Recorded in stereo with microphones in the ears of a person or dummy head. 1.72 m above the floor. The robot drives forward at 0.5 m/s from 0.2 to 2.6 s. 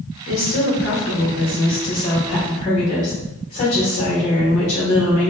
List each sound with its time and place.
0.3 s a woman speaking: 60° left (ahead or behind), 1.2 m; by 5.3 s 40° left (ahead or behind), 1.6 m